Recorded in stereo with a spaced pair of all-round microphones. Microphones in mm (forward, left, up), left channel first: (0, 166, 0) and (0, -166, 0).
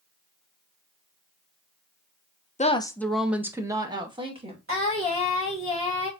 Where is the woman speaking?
25° left (ahead or behind), 0.6 m; by 4.6 s 20° right (ahead or behind), 1.8 m.